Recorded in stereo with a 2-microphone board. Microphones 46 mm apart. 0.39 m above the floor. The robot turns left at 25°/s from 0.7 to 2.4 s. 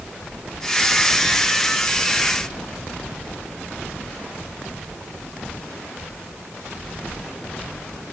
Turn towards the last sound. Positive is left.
No sound to turn to.